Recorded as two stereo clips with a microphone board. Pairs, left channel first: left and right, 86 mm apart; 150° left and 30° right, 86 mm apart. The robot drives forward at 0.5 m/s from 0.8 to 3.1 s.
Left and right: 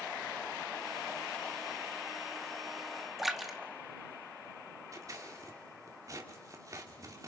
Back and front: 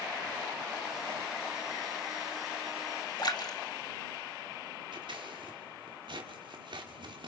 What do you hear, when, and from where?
3.2 s a splash: straight behind, 1.9 m
4.9 s scissors: 45° right, 3 m